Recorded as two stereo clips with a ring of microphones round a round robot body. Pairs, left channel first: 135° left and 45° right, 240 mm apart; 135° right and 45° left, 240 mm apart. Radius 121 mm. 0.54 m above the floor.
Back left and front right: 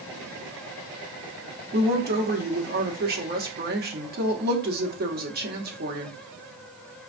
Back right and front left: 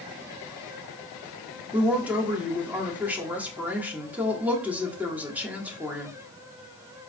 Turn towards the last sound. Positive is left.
turn(degrees=-35)